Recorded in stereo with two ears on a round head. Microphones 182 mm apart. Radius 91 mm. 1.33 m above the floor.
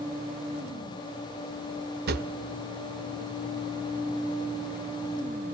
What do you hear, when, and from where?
2.1 s a drawer: 50° right (ahead or behind), 1.6 m